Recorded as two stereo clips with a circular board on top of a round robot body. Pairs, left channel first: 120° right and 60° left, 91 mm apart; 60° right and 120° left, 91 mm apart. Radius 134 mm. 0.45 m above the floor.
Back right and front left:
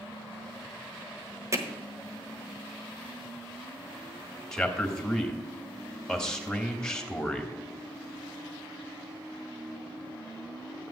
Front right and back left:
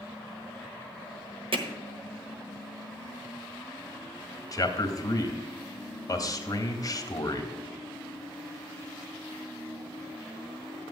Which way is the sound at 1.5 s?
115° left.